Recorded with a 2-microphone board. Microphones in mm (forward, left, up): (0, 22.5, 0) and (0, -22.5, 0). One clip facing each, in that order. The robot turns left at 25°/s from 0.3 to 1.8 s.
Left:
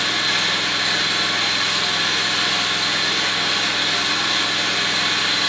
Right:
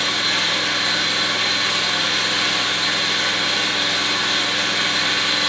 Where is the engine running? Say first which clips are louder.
Even; straight ahead, 1.7 m; by 5.5 s 35° right, 1.7 m.